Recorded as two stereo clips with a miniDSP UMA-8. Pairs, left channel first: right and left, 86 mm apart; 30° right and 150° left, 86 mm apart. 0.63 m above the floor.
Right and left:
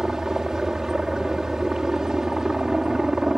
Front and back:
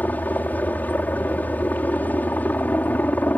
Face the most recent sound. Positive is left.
turn(degrees=15)